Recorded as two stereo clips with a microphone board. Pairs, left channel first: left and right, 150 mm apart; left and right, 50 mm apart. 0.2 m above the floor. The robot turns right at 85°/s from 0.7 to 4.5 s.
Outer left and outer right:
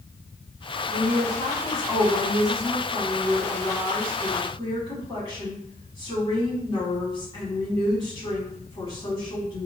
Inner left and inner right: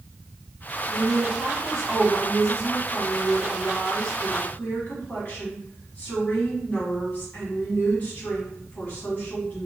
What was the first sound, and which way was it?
A woman speaking, 105° left.